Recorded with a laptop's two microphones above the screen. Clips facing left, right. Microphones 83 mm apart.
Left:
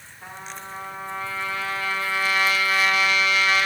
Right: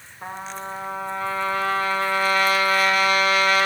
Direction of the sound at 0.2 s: 45° right (ahead or behind).